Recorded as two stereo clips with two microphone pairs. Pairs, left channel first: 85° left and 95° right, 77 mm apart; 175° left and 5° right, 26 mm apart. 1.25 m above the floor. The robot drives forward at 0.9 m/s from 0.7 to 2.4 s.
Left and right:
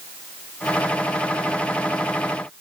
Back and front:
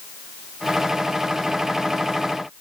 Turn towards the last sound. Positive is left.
No sound to turn to.